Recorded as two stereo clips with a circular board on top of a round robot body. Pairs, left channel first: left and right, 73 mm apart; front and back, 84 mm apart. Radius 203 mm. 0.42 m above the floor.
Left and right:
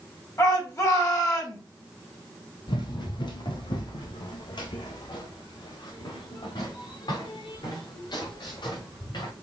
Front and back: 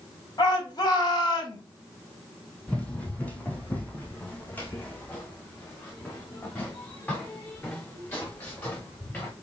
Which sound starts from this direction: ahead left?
A shout, at 0.4 s.